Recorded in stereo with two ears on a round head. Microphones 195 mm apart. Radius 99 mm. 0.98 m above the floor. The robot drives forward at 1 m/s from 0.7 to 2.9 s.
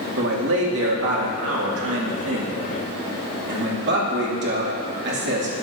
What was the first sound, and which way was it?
A man speaking, 60° right (ahead or behind).